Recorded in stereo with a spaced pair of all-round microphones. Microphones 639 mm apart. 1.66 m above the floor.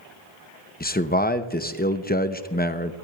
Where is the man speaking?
15° left (ahead or behind), 0.7 m.